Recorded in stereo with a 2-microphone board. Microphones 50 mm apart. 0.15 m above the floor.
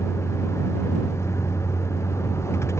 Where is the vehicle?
70° left (ahead or behind).